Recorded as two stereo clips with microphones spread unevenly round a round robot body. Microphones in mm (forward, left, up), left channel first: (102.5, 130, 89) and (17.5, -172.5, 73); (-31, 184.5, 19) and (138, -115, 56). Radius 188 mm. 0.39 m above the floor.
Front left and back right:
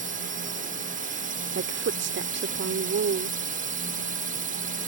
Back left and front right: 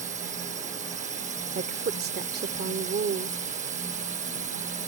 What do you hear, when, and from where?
0.0 s a drone: 120° right
1.6 s a woman speaking: 115° right